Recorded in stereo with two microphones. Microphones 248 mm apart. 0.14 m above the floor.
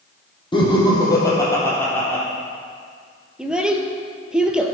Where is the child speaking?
5° right (ahead or behind), 1.7 m.